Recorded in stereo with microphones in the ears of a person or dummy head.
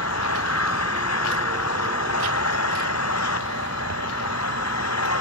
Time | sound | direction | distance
0.0 | an engine running | 80° left | ?